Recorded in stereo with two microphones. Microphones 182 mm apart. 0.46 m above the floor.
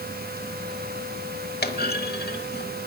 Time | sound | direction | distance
1.6 | a clunk | 55° left (ahead or behind) | 1.0 m